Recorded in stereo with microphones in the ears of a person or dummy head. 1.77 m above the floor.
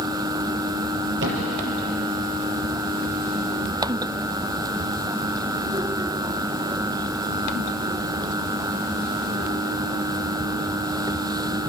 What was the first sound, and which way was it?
A thud, 65° right (ahead or behind).